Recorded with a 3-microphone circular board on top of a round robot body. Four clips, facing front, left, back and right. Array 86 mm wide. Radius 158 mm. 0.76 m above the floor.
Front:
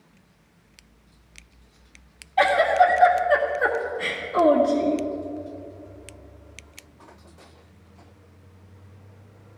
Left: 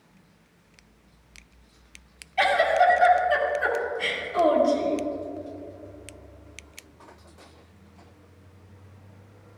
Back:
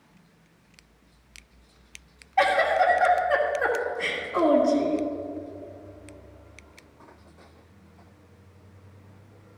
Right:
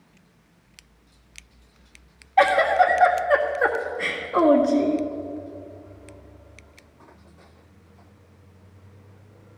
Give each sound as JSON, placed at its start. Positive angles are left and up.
{"t": 2.4, "sound": "a giggle", "azimuth_deg": -95, "distance_m": 1.8}